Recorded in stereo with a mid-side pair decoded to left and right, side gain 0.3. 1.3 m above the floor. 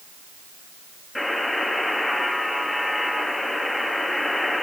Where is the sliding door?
I don't hear a sliding door.